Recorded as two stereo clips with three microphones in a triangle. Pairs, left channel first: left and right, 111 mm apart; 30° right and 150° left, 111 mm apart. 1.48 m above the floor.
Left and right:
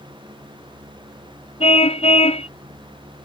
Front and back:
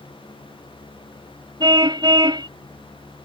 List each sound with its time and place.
1.6 s a car horn: 105° left